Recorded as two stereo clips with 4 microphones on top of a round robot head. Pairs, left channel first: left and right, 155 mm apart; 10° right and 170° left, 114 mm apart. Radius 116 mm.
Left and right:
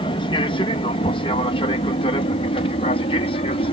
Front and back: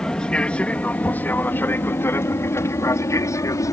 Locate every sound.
0.0 s an aircraft: 70° left; by 3.7 s 45° left